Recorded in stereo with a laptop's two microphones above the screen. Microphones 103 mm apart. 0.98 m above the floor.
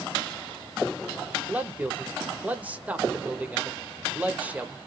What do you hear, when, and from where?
1.5 s a man speaking: 15° right (ahead or behind), 0.7 m